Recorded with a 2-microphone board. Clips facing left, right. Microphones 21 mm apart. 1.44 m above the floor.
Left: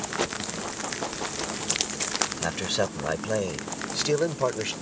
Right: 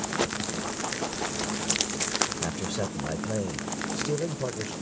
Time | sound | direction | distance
2.4 | a man speaking | 35° left (ahead or behind) | ?